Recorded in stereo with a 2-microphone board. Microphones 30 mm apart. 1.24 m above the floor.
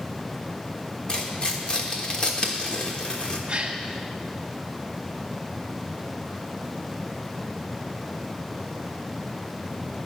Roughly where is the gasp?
Right.